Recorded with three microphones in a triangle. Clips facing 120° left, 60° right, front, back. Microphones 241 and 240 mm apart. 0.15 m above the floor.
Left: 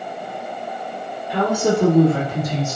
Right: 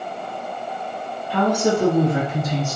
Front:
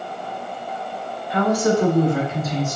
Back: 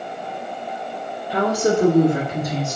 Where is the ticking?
I don't hear ticking.